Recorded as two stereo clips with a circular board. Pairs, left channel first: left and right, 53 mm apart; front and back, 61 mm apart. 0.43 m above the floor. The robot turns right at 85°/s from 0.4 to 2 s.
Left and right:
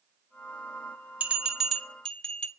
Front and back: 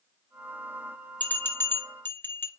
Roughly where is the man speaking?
No man speaking in this recording.